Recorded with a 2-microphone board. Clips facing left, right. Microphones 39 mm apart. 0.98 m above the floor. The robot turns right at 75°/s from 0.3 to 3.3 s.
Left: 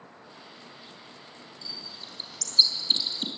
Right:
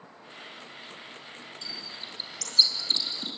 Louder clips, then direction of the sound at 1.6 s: Right 1 dB; 65° right (ahead or behind).